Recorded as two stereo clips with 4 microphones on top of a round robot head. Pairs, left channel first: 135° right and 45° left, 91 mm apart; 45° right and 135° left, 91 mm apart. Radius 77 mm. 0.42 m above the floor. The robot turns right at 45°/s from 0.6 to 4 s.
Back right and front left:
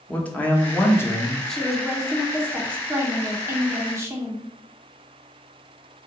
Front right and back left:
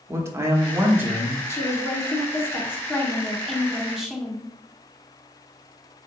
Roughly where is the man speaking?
Behind.